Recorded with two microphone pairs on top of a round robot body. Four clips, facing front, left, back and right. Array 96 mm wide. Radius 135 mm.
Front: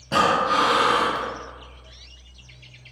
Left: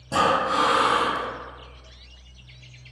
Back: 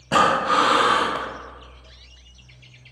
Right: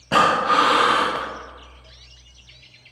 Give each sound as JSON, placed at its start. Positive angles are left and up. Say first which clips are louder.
{"t": 0.1, "sound": "breathing", "louder": "right 4 dB, back 2 dB", "azimuth_deg": -140, "distance_m": 0.5}